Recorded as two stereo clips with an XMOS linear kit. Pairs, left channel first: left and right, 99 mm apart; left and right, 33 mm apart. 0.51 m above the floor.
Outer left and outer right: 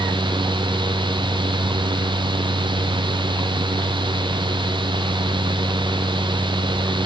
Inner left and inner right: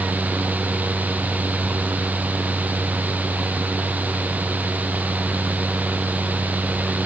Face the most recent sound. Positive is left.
No sound to turn to.